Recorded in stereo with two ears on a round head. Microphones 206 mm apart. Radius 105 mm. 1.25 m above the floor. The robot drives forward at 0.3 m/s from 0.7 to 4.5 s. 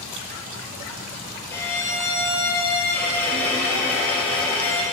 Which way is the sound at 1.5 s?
15° left (ahead or behind).